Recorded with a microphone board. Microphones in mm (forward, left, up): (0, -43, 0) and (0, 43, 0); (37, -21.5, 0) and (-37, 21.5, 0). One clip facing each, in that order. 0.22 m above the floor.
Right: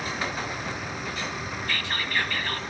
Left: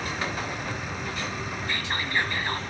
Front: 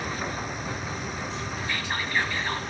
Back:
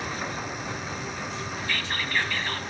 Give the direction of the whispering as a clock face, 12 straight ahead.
11 o'clock.